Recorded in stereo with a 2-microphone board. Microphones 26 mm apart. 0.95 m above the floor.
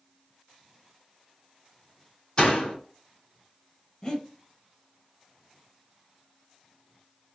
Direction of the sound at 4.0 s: 25° left (ahead or behind).